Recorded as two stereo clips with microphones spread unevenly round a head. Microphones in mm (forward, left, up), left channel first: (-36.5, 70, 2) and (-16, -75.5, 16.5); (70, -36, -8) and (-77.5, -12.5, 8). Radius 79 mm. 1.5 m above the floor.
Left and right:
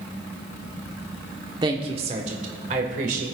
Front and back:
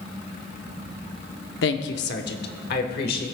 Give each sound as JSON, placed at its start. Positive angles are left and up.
{"t": 1.6, "sound": "a woman speaking", "azimuth_deg": -15, "distance_m": 0.8}